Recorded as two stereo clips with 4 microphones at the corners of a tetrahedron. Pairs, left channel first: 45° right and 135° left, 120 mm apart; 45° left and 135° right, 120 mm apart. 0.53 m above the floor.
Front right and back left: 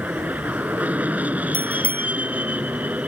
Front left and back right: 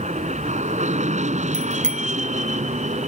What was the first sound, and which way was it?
An aircraft, 150° right.